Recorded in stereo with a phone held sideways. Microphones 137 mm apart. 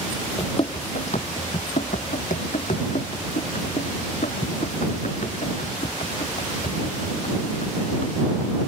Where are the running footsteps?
35° left (ahead or behind); by 8.5 s 55° left (ahead or behind).